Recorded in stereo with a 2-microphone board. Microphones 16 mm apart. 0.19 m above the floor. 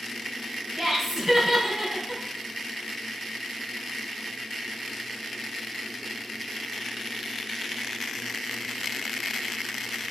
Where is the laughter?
15° right (ahead or behind), 1.2 m.